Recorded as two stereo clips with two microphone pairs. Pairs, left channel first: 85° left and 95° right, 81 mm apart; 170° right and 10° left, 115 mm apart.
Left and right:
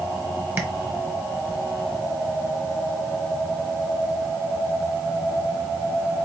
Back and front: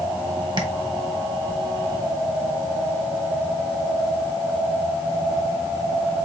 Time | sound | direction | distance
0.6 | tapping | 35° right | 0.9 m